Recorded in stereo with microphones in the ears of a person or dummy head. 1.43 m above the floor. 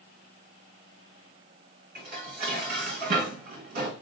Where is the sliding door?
No sliding door in this recording.